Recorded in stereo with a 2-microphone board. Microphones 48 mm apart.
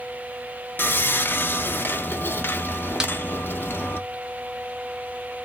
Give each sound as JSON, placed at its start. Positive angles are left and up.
{"t": 0.8, "sound": "sawing", "side_deg": 45, "distance_m": 0.6}
{"t": 3.0, "sound": "a snare drum", "side_deg": -15, "distance_m": 0.6}